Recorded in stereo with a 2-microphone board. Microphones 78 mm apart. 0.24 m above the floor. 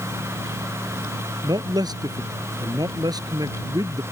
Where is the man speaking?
55° right (ahead or behind).